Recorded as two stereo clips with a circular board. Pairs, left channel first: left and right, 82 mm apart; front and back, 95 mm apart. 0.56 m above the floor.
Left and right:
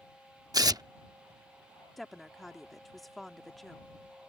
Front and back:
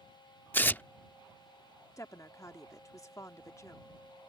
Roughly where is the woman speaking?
Ahead.